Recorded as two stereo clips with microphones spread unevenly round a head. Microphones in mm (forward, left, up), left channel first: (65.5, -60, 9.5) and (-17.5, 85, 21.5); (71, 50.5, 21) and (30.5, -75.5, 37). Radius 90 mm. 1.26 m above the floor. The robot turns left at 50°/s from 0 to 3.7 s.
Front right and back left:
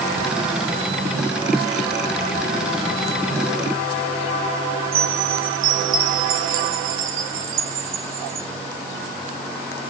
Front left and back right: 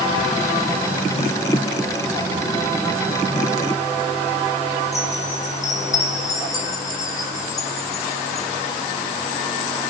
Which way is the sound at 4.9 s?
145° left.